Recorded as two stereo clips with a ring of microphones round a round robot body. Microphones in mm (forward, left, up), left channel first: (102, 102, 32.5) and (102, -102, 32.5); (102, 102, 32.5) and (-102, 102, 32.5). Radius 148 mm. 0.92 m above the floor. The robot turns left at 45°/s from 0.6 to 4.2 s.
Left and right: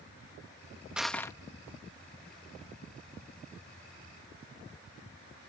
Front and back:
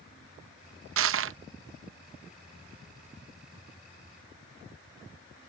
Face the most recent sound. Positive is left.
turn(degrees=40)